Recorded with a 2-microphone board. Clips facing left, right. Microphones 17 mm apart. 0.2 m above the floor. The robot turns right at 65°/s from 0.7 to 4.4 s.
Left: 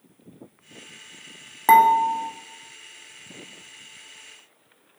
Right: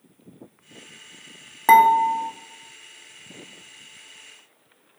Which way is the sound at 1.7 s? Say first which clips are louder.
Right 1 dB; 10° right (ahead or behind).